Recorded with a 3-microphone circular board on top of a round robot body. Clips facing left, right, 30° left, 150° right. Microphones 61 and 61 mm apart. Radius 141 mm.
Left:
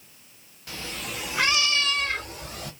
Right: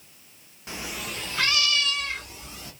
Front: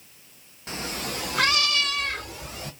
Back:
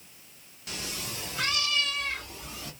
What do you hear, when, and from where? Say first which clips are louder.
0.7 s a cat meowing: right 1 dB, front 6 dB; 25° right, 0.6 m; by 2.7 s 60° left, 1.0 m